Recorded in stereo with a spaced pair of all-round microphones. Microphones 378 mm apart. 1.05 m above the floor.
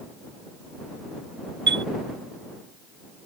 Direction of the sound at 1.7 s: 30° right (ahead or behind).